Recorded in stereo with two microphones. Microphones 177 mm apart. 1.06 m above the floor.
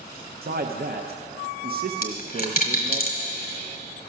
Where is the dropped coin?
55° left (ahead or behind), 1.4 m.